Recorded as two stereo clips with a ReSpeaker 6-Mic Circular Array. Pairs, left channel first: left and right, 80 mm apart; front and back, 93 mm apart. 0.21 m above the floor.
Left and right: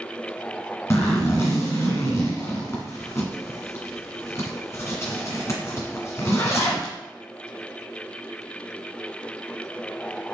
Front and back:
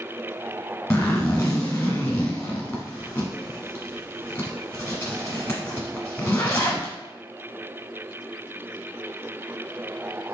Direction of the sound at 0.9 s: 55° left.